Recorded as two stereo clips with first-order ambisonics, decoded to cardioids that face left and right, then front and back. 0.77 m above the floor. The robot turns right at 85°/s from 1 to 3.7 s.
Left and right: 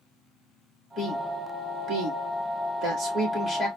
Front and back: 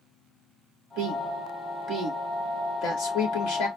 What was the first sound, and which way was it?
A woman speaking, 155° left.